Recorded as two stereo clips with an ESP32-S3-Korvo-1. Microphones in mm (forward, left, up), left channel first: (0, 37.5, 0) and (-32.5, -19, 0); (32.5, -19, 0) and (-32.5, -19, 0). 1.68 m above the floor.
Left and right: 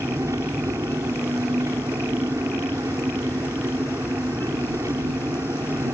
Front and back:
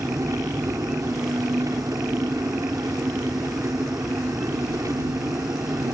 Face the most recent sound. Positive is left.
turn(degrees=-150)